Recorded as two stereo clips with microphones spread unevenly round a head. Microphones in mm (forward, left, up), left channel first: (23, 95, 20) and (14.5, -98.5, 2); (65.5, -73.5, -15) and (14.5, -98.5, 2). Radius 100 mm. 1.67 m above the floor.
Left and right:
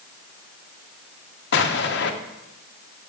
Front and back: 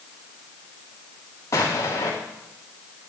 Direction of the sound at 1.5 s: 85° left.